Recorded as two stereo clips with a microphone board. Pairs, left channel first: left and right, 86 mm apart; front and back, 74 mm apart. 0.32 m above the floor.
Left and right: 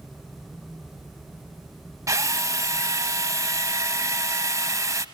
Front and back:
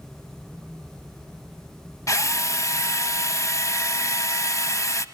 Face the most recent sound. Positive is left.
turn(degrees=-40)